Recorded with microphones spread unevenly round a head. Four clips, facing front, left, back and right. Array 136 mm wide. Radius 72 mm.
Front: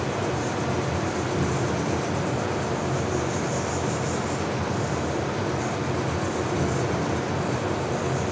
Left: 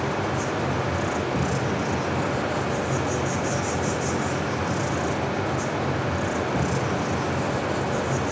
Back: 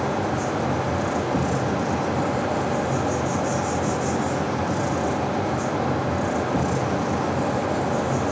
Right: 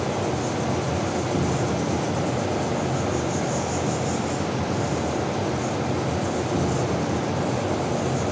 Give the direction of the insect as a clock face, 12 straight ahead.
5 o'clock.